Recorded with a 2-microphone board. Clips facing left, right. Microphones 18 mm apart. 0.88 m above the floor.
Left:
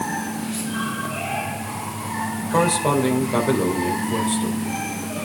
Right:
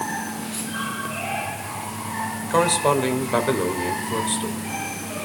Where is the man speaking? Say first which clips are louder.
Even; 30° right (ahead or behind), 4 m.